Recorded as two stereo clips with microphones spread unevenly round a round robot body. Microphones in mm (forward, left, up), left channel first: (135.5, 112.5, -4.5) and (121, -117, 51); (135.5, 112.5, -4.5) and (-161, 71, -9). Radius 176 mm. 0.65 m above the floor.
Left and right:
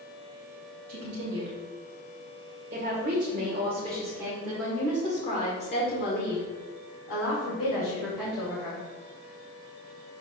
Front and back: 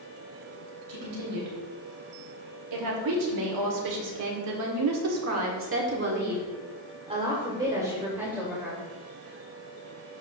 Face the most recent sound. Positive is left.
turn(degrees=100)